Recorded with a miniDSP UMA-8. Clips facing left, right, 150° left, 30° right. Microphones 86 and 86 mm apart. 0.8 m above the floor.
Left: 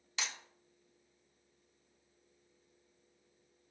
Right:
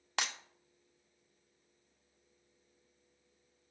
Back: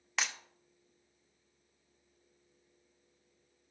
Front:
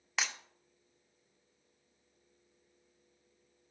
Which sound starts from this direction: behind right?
Breaking glass, at 0.2 s.